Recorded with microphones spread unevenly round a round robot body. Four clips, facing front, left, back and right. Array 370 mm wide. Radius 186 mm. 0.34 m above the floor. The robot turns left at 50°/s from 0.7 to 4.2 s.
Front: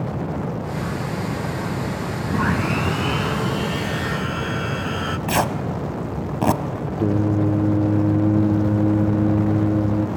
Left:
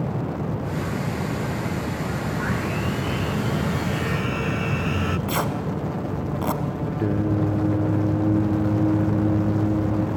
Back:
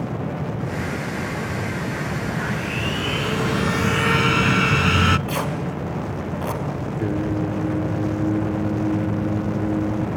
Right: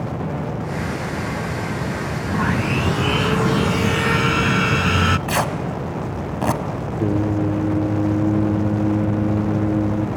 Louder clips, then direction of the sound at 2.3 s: Right 9 dB, front 5 dB; 40° right.